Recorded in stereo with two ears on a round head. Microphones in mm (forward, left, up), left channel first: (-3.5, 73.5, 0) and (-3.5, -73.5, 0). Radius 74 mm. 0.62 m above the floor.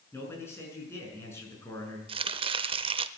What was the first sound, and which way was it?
A man speaking, 15° left (ahead or behind).